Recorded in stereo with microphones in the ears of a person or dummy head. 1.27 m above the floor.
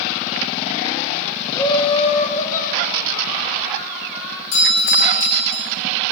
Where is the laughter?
15° left (ahead or behind), 1.1 m; by 4.4 s 60° left (ahead or behind), 3 m.